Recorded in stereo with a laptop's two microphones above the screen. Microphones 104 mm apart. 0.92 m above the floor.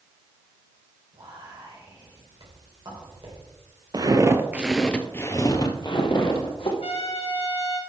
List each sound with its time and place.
1.1 s whispering: 45° right (ahead or behind), 4.5 m
3.9 s footsteps: 40° right (ahead or behind), 1.1 m; by 6.7 s 60° left (ahead or behind), 2 m
6.8 s a trumpet: 70° left (ahead or behind), 1.7 m